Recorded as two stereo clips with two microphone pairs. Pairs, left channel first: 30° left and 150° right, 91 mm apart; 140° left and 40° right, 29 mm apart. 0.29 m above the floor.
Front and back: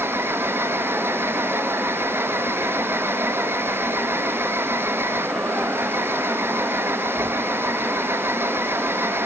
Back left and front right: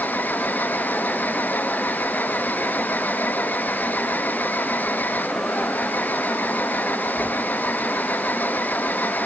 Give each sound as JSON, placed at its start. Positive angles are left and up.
{"t": 0.0, "sound": "an engine running", "azimuth_deg": 145}